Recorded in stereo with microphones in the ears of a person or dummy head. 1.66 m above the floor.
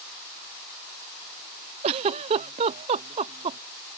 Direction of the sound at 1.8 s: 30° right (ahead or behind).